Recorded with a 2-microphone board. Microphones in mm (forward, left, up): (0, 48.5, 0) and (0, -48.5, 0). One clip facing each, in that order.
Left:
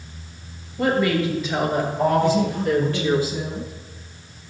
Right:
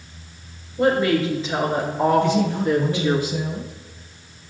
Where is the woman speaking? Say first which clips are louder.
Right 2 dB; 30° right (ahead or behind), 4.5 m; by 3.2 s 20° right (ahead or behind), 3 m.